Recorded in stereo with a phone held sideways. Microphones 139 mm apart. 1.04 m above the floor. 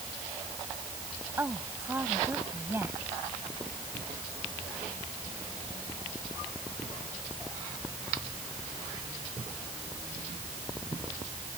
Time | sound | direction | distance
1.4 | a woman speaking | 15° right (ahead or behind) | ?